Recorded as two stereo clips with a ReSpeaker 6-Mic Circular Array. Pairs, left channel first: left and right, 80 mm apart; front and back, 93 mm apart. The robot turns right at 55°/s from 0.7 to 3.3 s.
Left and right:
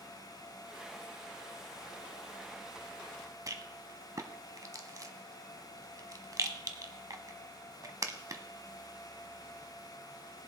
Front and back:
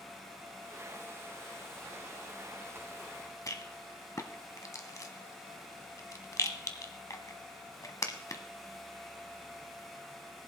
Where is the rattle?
50° right, 1.0 m.